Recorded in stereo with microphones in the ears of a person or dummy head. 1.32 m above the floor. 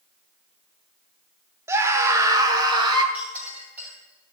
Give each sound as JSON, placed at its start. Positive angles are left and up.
{"t": 1.7, "sound": "a scream", "side_deg": -20, "distance_m": 1.4}
{"t": 3.1, "sound": "a clink", "side_deg": -15, "distance_m": 4.0}